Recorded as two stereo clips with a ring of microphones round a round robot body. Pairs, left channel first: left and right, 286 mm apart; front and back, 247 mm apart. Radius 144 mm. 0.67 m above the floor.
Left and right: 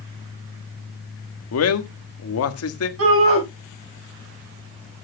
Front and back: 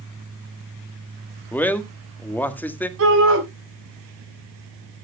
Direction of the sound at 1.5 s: 80° left.